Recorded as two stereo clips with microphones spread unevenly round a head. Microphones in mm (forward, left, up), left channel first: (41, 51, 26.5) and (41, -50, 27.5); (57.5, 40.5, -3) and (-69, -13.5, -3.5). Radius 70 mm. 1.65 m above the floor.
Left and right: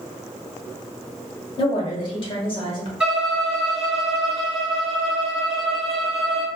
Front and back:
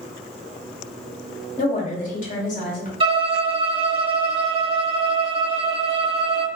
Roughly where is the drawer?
No drawer in this recording.